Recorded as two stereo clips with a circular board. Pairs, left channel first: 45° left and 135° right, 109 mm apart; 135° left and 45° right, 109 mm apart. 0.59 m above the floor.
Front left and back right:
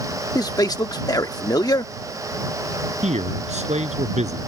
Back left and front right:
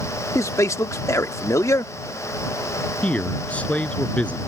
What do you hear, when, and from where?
0.3 s a man speaking: 85° left
3.0 s a man speaking: 145° right